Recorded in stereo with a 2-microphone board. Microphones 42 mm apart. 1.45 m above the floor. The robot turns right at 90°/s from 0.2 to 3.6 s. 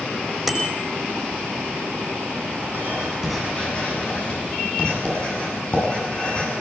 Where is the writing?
50° right (ahead or behind), 9 m; by 6.5 s 30° left (ahead or behind), 9 m.